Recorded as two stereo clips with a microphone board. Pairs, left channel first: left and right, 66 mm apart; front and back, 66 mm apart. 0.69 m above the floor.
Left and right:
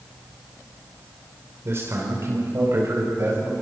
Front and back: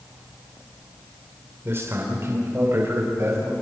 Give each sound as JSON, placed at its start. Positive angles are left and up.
{"t": 1.6, "sound": "a man speaking", "azimuth_deg": -130, "distance_m": 3.0}